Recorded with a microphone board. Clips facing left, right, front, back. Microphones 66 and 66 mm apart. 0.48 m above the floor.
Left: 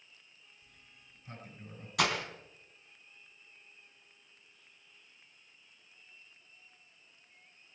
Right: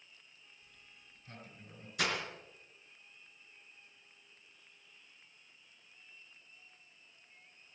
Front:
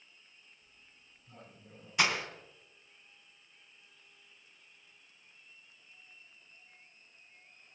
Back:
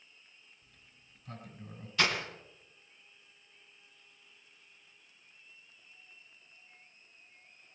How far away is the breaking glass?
About 3 m.